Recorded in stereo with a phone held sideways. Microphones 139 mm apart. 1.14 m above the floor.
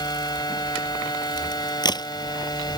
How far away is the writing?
I don't hear writing.